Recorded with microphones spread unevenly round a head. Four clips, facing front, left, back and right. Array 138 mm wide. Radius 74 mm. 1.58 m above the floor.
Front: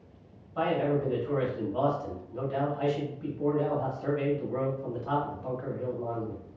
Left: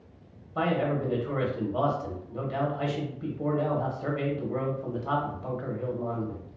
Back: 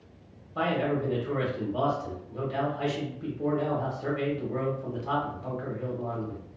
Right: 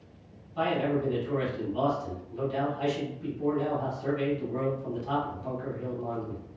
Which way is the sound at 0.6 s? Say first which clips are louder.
Even, even; 135° left.